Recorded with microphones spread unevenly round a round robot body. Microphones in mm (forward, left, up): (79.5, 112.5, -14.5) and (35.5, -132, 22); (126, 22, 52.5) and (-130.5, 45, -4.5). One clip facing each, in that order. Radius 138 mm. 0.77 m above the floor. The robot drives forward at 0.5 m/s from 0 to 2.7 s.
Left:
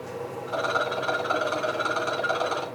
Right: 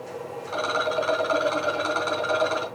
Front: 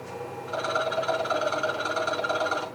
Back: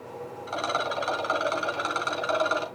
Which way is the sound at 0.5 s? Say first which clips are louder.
Right 2 dB, front 2 dB; 165° right.